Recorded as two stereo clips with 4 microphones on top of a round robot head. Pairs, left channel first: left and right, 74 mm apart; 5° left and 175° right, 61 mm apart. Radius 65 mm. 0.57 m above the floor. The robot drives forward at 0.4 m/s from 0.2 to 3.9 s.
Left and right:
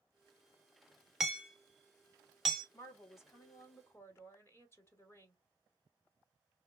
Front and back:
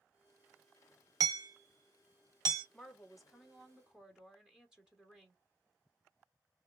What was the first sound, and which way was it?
Hammering, 175° right.